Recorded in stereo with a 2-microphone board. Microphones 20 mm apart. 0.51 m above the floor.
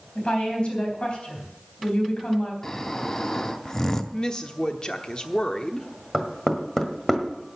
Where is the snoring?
25° left (ahead or behind), 0.8 m.